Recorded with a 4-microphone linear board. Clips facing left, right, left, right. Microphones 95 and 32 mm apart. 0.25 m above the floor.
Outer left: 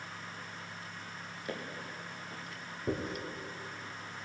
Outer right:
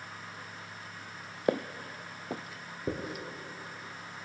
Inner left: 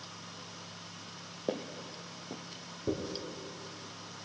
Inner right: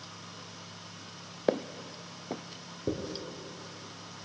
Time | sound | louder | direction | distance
1.5 | footsteps | outer right 11 dB, inner right 7 dB | 70° right (ahead or behind) | 0.6 m
2.9 | a dropped coin | even, inner right 1 dB | 20° right (ahead or behind) | 2.5 m